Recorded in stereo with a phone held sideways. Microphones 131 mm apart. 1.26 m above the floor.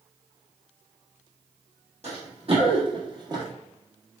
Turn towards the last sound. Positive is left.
turn(degrees=-30)  # may be behind; listen again after turning